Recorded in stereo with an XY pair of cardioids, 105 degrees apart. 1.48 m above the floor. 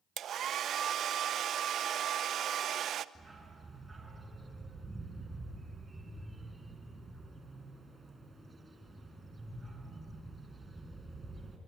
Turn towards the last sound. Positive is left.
turn(degrees=-25)